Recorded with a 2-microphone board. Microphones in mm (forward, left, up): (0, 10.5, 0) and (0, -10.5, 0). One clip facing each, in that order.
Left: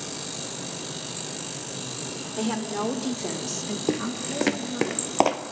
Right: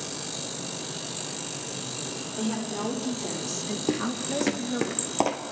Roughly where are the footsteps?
Centre.